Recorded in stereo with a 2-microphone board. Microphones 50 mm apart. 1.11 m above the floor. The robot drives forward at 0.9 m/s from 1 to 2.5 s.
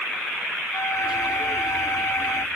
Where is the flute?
85° left.